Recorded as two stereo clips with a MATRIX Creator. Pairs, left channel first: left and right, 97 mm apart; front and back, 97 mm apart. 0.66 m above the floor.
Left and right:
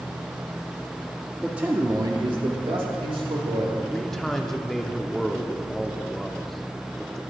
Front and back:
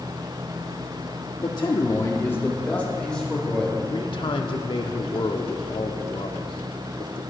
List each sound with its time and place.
1.4 s a man speaking: 5° right, 0.9 m; by 3.8 s 85° right, 2.5 m
3.9 s a man speaking: 5° left, 1.2 m